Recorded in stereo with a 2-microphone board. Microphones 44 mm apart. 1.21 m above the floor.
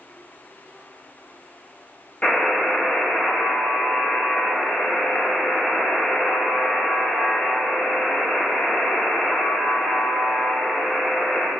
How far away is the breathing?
No breathing in this recording.